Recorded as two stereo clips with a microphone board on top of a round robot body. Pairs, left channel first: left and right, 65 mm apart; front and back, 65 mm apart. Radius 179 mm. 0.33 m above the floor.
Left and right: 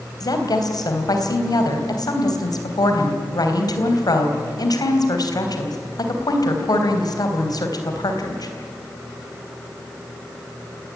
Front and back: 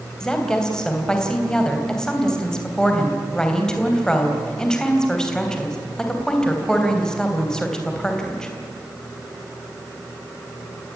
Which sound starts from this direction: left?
A woman speaking, at 0.2 s.